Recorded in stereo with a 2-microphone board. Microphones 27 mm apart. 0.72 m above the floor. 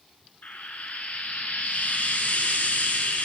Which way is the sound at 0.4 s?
80° left.